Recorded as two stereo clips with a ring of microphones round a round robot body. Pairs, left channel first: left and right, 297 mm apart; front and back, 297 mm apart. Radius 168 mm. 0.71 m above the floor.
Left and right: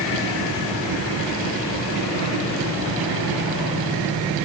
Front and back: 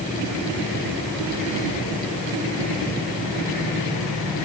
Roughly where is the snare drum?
No snare drum in this recording.